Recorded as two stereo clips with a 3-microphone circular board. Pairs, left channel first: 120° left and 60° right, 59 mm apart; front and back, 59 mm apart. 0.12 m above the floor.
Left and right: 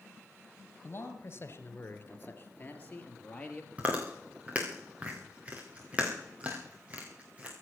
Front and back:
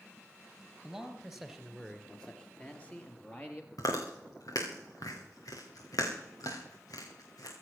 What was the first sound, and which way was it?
A man speaking, 105° left.